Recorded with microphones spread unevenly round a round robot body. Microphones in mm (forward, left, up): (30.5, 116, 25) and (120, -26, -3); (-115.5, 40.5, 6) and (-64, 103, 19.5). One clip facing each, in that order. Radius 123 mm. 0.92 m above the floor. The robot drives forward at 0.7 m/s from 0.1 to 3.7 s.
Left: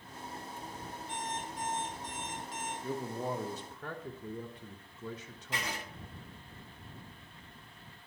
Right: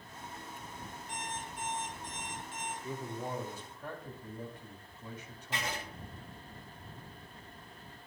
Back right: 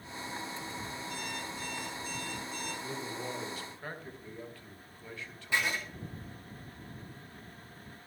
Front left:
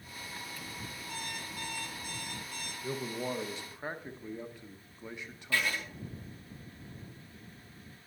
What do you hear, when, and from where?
1.1 s an alarm clock: 65° left, 6 m; by 2.7 s 80° left, 5.5 m
2.8 s a man speaking: 85° left, 1.1 m; by 5.8 s 125° left, 1.2 m
5.5 s writing: 165° left, 2.5 m